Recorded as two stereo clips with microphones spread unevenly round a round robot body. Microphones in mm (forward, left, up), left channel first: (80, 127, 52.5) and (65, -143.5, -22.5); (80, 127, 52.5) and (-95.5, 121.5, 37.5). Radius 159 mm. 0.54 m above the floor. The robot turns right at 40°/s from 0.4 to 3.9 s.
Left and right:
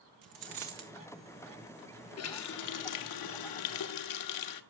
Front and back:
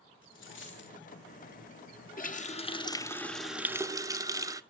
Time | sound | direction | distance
0.2 | a dropped coin | 75° right | 1.8 m
2.2 | a running tap | 45° left | 1.0 m